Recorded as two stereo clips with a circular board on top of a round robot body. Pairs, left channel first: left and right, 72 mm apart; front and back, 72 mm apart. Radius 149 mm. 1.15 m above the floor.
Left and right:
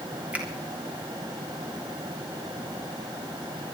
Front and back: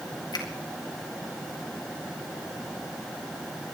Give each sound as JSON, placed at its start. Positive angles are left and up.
{"t": 0.3, "sound": "a finger snap", "azimuth_deg": -20, "distance_m": 3.5}